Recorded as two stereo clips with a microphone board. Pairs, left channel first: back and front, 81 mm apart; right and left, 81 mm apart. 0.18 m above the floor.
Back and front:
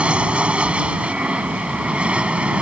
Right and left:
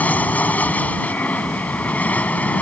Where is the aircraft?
55° right.